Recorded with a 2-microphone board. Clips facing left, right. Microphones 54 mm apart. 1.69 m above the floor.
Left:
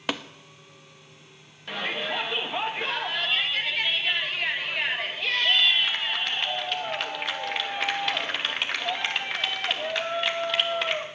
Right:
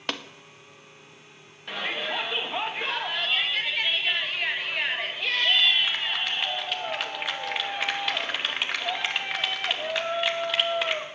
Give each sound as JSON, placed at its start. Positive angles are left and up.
{"t": 0.1, "sound": "tapping", "side_deg": 5, "distance_m": 0.8}
{"t": 1.7, "sound": "a shout", "side_deg": 0, "distance_m": 2.5}